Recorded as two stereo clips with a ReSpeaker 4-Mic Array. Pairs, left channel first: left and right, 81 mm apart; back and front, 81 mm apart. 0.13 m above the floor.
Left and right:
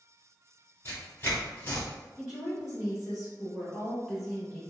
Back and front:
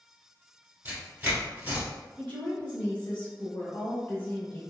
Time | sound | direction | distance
0.8 | tearing paper | 50° left | 1.3 m
2.2 | a woman speaking | 160° right | 1.3 m